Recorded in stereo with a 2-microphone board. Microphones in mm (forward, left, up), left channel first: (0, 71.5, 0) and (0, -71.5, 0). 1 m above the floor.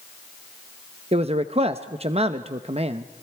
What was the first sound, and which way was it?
A man speaking, 45° right (ahead or behind).